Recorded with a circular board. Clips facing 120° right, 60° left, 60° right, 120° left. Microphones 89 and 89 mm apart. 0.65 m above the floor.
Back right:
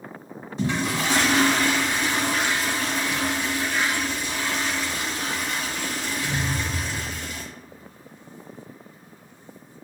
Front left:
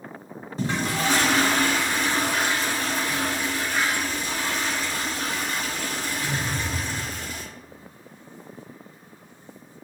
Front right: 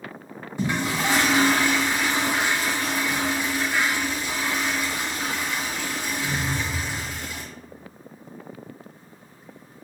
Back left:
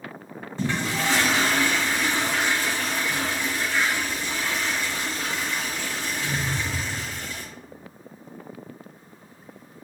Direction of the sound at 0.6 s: 15° left.